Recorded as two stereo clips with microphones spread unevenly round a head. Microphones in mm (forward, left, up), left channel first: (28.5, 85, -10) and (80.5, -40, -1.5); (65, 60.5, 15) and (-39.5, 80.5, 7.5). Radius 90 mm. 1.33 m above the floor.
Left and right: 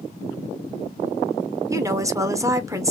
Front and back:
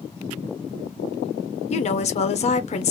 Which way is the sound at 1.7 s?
Straight ahead.